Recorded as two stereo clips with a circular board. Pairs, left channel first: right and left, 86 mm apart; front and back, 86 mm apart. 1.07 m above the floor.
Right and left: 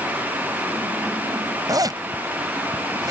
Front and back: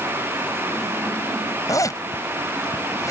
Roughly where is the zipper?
Ahead left.